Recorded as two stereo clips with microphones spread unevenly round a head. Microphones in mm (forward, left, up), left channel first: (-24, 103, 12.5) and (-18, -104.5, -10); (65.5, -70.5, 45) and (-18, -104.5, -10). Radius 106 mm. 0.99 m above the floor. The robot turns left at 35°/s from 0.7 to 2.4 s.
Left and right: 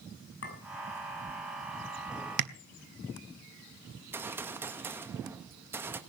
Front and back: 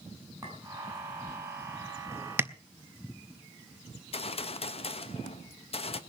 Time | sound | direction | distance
0.4 | a clink | 125° left | 6 m
2.4 | tapping | 85° right | 1.4 m
4.0 | a gunshot | 10° right | 1.2 m